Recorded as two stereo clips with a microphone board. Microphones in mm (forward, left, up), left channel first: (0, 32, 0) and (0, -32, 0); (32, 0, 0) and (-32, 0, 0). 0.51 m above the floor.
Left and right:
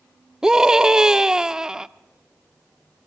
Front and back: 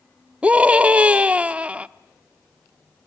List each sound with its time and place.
0.4 s a scream: 150° right, 0.8 m